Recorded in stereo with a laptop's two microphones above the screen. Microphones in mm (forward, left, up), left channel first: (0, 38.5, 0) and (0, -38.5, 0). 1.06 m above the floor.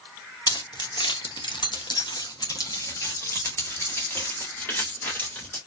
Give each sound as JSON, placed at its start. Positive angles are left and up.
{"t": 0.5, "sound": "keys jangling", "side_deg": 60, "distance_m": 1.0}